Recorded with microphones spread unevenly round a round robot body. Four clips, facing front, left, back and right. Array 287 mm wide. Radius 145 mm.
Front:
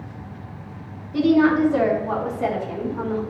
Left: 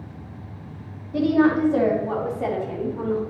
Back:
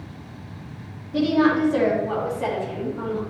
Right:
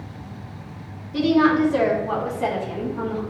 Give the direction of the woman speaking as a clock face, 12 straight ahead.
9 o'clock.